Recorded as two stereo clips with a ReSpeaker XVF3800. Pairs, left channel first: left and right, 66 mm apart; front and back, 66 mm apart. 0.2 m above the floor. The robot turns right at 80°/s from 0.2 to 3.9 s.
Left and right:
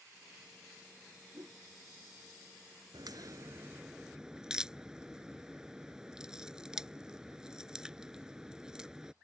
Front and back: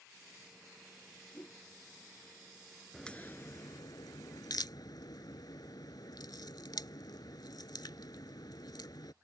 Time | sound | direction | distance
1.3 | a whoosh | 70° right | ?
2.9 | a crack | 85° right | ?